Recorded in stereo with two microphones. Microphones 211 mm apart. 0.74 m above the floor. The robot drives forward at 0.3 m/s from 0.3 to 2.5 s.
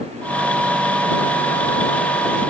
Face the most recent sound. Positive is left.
No sound to turn to.